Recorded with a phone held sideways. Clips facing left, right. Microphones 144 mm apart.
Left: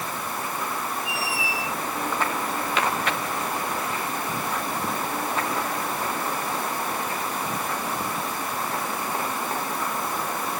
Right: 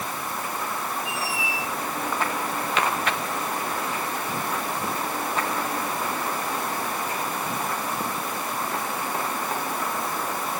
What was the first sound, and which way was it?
A squeak, 60° left (ahead or behind).